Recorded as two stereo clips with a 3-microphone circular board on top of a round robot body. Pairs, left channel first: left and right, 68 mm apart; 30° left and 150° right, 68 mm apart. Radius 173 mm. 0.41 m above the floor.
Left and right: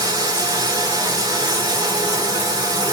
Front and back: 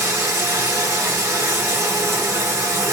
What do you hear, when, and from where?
0.0 s running water: 100° right, 2.5 m